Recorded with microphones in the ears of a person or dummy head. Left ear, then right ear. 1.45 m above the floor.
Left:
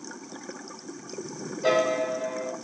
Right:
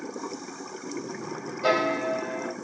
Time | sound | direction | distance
1.6 | a piano | 20° right (ahead or behind) | 1.0 m